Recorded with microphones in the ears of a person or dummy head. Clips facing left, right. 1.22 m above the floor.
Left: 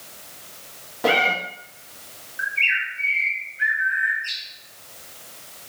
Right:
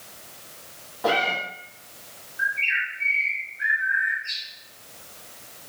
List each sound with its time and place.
1.0 s a cat meowing: 40° left (ahead or behind), 0.8 m
2.4 s a bird: 75° left (ahead or behind), 1.5 m